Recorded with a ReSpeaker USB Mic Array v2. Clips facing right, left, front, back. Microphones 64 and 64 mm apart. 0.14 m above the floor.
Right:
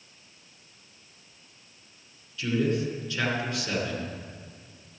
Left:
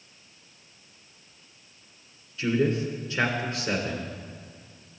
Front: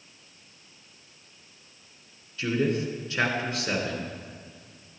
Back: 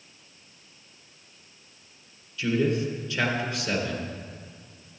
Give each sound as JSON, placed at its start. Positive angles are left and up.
{"t": 2.4, "sound": "a man speaking", "azimuth_deg": 45, "distance_m": 2.0}